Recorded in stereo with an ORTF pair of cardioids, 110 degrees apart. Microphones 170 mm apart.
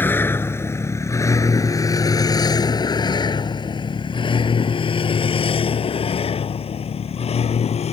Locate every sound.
0.0 s a vehicle: 10° left; by 7.9 s 40° left